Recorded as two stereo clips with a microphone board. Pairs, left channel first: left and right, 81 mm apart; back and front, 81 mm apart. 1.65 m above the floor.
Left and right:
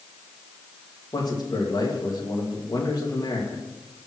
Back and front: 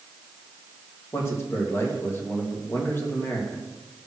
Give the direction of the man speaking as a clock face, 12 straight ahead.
8 o'clock.